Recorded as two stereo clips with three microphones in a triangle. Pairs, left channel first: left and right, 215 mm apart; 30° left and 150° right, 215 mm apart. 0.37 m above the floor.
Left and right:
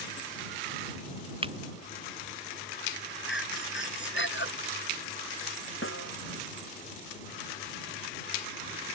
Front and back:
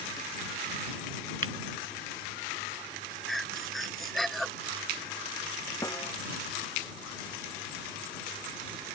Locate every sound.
1.4 s breaking glass: 155° right
3.3 s breathing: 120° left
5.8 s a snare drum: 105° left